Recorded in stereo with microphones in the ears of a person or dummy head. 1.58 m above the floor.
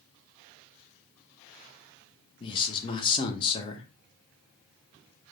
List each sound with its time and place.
2.4 s a man speaking: 30° left (ahead or behind), 0.8 m